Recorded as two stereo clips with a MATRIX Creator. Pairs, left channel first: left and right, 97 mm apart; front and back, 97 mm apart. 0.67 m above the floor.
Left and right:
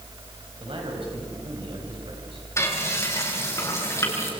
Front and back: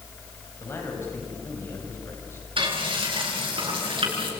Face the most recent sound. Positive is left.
turn(degrees=150)